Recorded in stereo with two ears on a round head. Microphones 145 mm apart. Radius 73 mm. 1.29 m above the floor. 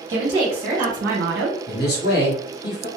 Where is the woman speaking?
25° right (ahead or behind), 1.2 m; by 1.6 s 85° right, 0.7 m.